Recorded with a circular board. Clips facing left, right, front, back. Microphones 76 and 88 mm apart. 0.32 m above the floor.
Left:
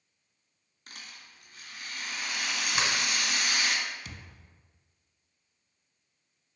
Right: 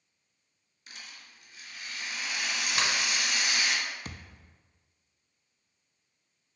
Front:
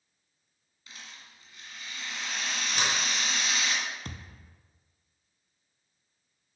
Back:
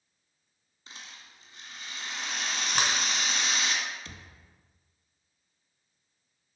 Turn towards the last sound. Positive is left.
turn(degrees=-40)